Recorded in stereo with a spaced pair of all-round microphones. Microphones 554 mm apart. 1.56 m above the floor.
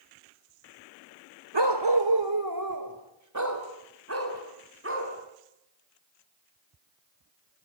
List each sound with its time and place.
1.5 s a dog barking: 50° right (ahead or behind), 1.7 m; by 5.1 s 20° right (ahead or behind), 5 m